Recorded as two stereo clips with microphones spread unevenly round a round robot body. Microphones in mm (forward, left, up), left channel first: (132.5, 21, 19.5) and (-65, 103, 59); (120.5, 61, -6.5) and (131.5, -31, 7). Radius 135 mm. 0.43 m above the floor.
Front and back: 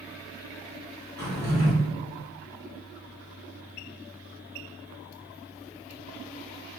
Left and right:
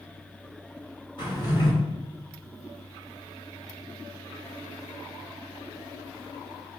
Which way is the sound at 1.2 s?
60° left.